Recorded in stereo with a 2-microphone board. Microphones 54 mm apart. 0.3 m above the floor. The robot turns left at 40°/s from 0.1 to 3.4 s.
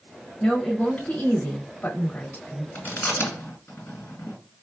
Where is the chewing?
40° left (ahead or behind), 1.9 m.